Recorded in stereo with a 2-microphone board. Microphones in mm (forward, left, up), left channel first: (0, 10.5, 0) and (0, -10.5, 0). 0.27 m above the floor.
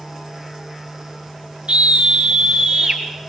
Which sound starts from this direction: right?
A scream, at 1.7 s.